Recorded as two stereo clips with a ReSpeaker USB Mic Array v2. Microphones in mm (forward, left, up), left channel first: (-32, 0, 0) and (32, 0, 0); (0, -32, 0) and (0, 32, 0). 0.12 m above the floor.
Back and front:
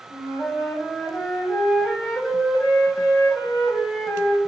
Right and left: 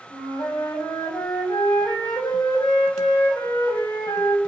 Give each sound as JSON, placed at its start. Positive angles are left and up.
{"t": 0.1, "sound": "a flute", "azimuth_deg": -110, "distance_m": 5.0}